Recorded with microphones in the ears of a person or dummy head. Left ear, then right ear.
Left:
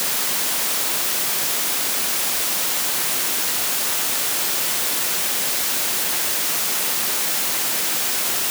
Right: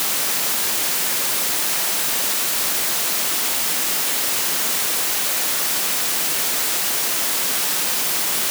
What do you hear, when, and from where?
Only background noise.